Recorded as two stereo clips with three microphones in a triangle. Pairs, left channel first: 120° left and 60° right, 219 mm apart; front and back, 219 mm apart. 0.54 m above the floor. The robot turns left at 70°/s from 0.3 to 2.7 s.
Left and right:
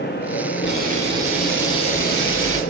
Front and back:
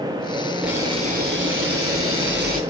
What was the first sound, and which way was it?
A camera shutter, 90° right.